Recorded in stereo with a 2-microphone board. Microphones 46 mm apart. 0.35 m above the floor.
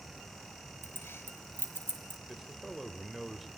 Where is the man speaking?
Centre (ahead or behind), 1.4 m.